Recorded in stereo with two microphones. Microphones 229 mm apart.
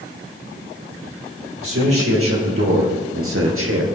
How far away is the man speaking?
About 6 m.